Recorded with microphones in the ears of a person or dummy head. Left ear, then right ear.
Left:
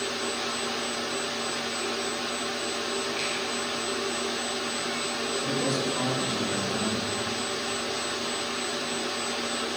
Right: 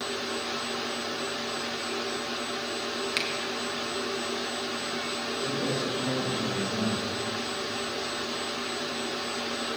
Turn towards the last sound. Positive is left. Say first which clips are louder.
# left 1 dB
turn(degrees=70)  # may be behind; listen again after turning